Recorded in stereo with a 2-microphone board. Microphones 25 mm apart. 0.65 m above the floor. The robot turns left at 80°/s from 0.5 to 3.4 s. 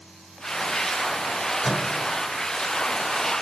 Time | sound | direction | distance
1.6 | a microwave | 10° left | 1.7 m